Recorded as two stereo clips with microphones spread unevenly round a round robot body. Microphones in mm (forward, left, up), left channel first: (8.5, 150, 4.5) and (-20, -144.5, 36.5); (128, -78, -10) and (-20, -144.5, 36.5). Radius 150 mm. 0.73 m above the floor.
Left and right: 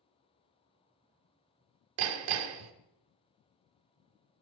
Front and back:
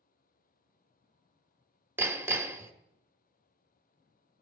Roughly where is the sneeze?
No sneeze in this recording.